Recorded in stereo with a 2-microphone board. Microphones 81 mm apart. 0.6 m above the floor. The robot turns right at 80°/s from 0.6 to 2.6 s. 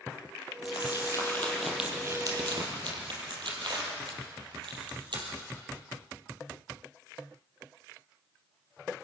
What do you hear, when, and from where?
0.7 s crumpling: 85° left, 5 m; by 5.3 s 75° right (ahead or behind), 5 m